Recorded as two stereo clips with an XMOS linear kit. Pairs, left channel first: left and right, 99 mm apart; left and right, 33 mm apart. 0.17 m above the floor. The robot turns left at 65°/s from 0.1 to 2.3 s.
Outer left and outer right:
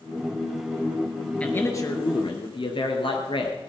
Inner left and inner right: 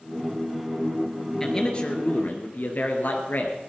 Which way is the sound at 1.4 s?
170° left.